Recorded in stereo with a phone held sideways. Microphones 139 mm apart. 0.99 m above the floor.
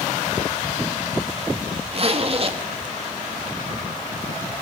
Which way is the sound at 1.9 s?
45° right (ahead or behind).